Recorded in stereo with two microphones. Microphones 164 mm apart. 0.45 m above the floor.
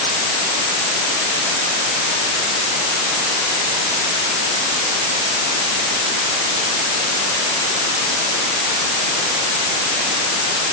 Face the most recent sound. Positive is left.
No sound to turn to.